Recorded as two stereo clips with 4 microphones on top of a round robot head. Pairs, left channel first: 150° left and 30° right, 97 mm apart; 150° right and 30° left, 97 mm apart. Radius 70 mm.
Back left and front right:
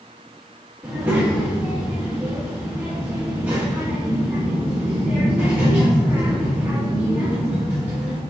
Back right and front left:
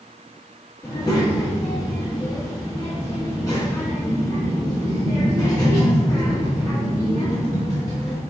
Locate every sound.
0.8 s a child speaking: 100° right, 0.8 m